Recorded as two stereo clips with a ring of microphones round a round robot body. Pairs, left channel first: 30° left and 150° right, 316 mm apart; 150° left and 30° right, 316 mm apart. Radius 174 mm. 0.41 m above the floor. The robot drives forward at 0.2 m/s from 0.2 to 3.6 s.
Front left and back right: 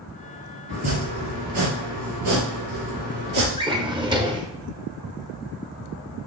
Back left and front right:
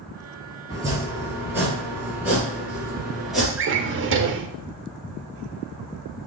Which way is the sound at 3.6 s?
75° right.